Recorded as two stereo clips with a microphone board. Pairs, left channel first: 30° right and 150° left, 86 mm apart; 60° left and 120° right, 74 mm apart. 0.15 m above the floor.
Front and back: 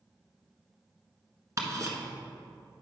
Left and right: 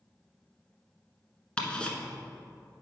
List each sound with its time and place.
1.6 s ticking: 130° left, 1.1 m